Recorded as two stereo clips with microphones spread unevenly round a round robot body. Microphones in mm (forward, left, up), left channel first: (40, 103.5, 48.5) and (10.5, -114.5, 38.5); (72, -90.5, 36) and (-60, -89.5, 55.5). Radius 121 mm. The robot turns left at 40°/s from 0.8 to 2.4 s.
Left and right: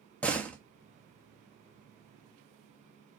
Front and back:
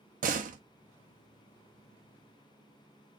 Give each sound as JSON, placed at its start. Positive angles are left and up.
{"t": 0.2, "sound": "a door slam", "azimuth_deg": 165, "distance_m": 0.7}